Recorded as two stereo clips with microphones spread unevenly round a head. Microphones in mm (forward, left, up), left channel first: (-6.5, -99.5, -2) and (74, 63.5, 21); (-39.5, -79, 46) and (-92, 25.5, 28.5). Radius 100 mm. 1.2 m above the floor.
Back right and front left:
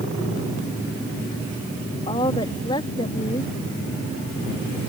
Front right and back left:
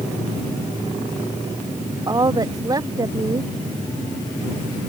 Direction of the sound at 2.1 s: 175° left.